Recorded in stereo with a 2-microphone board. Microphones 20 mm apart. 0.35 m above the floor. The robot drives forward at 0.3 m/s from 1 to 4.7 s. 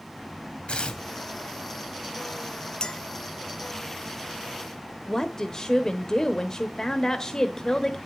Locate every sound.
0.7 s tearing paper: 55° left (ahead or behind), 2 m
2.8 s a clink: 40° left (ahead or behind), 0.6 m
5.1 s a woman speaking: 25° left (ahead or behind), 1.1 m